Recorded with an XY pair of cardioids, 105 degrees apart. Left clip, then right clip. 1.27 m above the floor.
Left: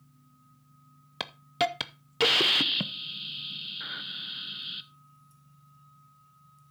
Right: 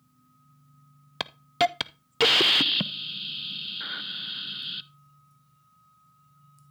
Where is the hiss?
30° right, 0.5 m.